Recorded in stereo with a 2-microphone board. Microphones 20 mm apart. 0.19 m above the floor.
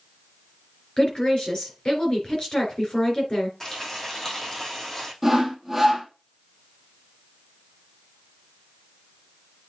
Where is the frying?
25° left (ahead or behind), 4.5 m.